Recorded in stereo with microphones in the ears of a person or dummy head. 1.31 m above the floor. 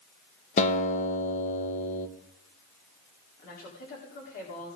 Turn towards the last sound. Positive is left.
turn(degrees=50)  # may be behind; listen again after turning